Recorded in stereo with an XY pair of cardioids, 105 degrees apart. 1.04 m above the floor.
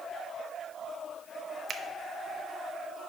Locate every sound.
1.7 s a finger snap: 45° right, 0.7 m